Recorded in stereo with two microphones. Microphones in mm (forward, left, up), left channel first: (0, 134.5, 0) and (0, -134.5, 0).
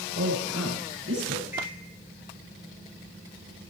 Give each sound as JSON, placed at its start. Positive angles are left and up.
{"t": 0.1, "sound": "a woman speaking", "side_deg": -60, "distance_m": 4.0}
{"t": 1.5, "sound": "a microwave", "side_deg": -5, "distance_m": 3.5}